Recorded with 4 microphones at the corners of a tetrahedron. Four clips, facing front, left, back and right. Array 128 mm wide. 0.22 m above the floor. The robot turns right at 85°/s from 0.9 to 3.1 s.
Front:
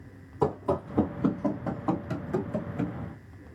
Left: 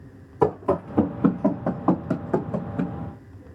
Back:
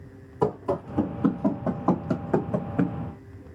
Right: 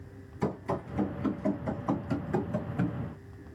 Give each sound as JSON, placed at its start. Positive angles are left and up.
{"t": 0.4, "sound": "running footsteps", "azimuth_deg": 90, "distance_m": 1.3}